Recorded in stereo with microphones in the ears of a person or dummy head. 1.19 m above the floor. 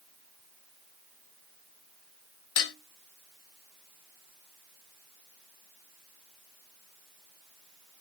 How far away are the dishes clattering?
About 0.8 m.